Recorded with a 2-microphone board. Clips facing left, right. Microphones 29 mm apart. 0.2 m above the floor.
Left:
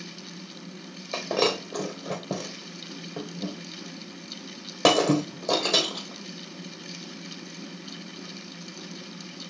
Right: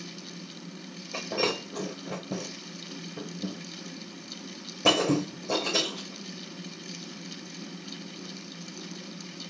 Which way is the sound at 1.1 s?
80° left.